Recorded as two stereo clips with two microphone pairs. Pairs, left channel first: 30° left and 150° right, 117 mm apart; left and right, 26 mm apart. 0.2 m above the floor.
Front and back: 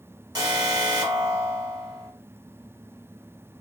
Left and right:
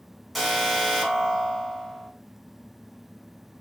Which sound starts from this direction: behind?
An alarm, at 0.3 s.